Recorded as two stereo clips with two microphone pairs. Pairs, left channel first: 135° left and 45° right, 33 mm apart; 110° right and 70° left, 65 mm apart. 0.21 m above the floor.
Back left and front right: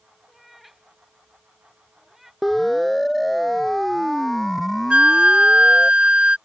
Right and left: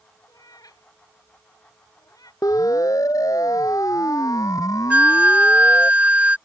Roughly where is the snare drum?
I don't hear a snare drum.